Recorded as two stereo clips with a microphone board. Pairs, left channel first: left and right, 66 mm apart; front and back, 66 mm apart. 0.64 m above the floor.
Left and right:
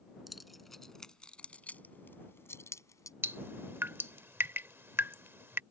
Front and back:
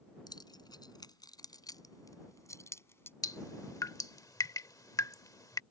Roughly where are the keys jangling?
Ahead.